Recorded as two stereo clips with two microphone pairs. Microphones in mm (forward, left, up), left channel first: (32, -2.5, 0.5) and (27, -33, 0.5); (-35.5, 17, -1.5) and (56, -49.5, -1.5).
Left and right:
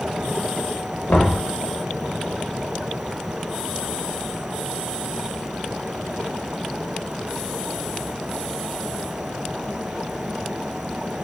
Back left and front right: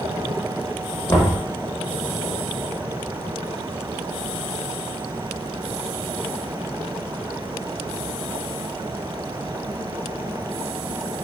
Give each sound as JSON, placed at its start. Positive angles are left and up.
{"t": 1.1, "sound": "knocking", "azimuth_deg": 80, "distance_m": 0.8}